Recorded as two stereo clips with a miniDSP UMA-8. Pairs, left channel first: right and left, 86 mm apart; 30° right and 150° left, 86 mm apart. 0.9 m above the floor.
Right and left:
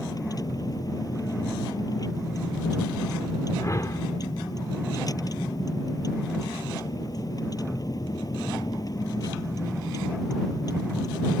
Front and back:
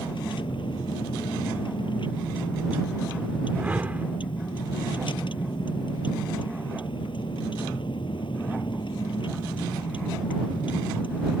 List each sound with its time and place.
0.0 s a vehicle: 45° right
3.6 s a whoosh: 140° right